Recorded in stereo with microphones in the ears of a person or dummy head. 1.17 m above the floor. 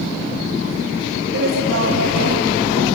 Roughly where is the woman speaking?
Right.